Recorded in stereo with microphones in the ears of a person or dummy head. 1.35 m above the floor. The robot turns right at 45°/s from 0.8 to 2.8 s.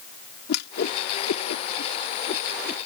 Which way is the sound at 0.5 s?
60° left (ahead or behind).